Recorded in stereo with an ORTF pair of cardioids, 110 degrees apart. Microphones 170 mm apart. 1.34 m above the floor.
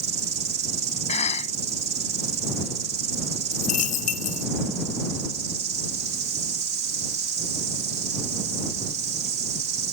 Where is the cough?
40° left.